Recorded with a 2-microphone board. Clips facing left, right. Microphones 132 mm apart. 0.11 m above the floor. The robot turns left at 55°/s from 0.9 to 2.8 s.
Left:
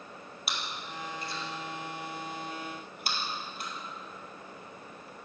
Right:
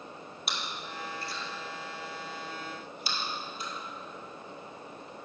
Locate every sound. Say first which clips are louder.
0.5 s chewing: even; centre (ahead or behind), 1.8 m; by 3.7 s 60° left (ahead or behind), 1.8 m